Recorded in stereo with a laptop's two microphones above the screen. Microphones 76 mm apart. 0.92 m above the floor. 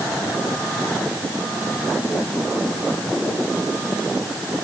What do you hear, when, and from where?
Only background noise.